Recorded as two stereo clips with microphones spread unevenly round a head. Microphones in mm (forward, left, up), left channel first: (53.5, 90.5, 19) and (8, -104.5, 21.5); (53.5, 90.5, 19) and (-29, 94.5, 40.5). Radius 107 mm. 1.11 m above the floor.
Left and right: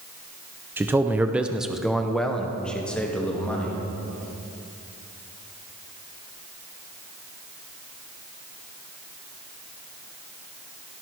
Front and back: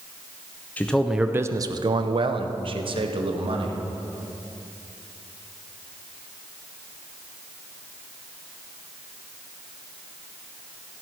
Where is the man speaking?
30° right, 0.7 m; by 3.8 s 160° left, 2 m.